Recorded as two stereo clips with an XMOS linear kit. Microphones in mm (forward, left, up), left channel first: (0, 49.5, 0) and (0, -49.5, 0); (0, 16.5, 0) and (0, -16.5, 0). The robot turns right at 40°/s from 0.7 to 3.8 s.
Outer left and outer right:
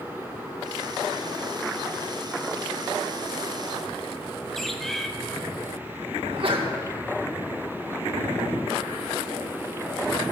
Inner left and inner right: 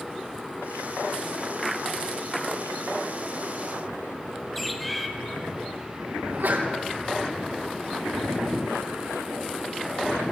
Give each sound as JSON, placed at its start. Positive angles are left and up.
{"t": 4.5, "sound": "a bird", "side_deg": 5, "distance_m": 1.0}
{"t": 6.2, "sound": "a sneeze", "side_deg": -70, "distance_m": 2.0}